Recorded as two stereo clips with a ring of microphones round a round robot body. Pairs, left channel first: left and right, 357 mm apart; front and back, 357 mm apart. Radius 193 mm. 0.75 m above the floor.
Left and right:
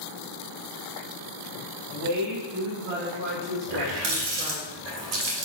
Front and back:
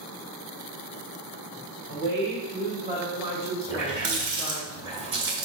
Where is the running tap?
95° right, 1.6 m.